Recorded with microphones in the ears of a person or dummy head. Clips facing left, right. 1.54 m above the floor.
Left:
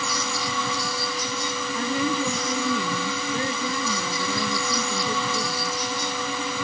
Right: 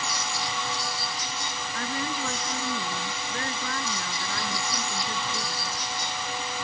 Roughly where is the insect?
Left.